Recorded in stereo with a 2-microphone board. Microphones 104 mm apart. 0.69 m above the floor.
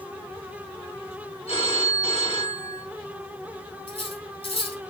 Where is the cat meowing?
I don't hear a cat meowing.